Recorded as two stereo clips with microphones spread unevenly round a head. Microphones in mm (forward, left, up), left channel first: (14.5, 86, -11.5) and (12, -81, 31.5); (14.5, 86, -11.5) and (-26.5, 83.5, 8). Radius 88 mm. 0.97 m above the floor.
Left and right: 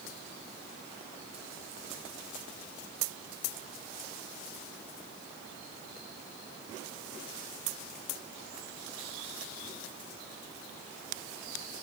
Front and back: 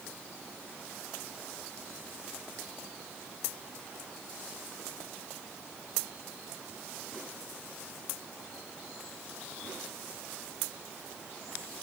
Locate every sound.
Only background noise.